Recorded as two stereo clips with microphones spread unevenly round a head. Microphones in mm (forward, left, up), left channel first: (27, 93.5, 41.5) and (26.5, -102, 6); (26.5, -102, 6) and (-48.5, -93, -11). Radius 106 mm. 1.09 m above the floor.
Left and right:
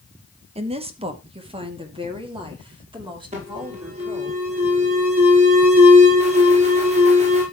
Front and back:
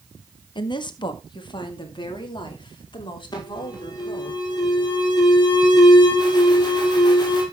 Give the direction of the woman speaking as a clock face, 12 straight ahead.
1 o'clock.